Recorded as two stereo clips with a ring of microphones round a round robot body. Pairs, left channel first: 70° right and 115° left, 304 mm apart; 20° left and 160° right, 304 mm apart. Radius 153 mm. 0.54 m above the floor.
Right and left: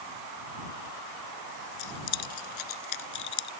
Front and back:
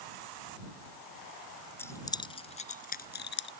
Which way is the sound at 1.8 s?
60° right.